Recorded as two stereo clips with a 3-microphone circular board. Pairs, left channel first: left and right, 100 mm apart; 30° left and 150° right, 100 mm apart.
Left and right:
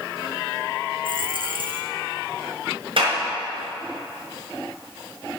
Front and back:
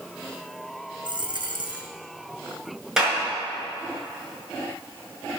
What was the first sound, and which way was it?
A dropped coin, 115° right.